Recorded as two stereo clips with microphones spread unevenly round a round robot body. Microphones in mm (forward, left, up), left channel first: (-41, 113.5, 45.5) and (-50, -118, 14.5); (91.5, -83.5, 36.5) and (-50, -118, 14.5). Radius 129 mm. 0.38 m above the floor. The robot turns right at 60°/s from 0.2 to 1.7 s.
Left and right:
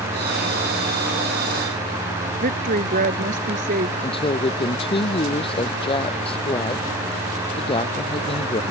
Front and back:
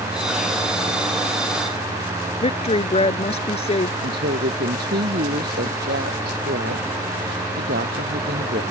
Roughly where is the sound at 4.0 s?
Behind left.